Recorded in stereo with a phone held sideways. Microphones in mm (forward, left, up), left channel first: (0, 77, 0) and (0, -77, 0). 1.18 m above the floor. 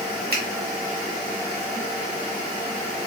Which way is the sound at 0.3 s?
75° right (ahead or behind).